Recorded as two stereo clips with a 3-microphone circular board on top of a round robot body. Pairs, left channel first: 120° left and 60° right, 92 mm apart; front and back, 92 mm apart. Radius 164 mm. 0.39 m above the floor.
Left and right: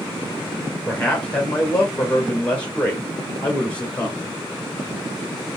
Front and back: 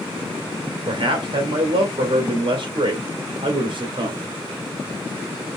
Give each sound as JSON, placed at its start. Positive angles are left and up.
{"t": 0.9, "sound": "a man speaking", "azimuth_deg": -165, "distance_m": 2.5}